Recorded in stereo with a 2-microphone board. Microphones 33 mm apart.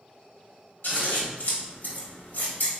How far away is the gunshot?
No gunshot in this recording.